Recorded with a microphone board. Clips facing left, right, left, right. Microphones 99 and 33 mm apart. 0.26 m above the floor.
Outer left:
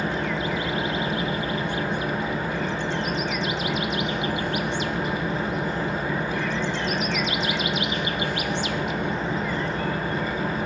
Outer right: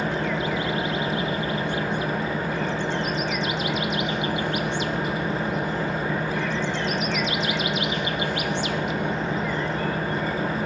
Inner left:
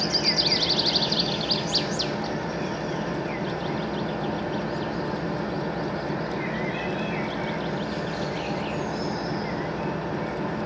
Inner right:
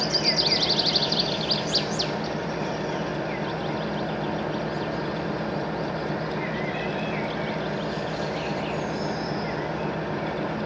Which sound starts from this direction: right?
An engine running, at 0.0 s.